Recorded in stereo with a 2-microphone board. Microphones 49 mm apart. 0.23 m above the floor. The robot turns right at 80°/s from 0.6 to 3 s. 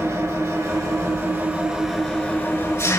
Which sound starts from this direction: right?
An engine running, at 0.0 s.